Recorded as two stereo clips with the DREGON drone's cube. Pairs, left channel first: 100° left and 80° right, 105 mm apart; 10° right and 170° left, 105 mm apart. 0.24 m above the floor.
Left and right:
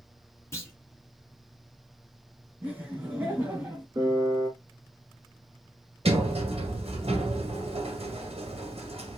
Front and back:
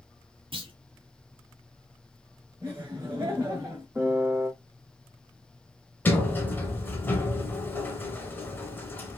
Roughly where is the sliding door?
Right.